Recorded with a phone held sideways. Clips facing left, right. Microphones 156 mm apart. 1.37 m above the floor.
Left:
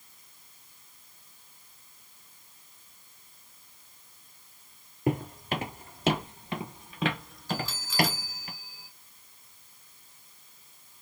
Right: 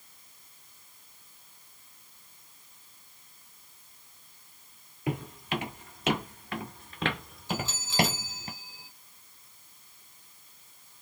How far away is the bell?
About 1.3 m.